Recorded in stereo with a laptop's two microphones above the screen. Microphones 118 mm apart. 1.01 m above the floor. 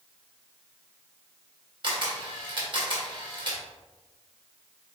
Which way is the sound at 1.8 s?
45° right (ahead or behind).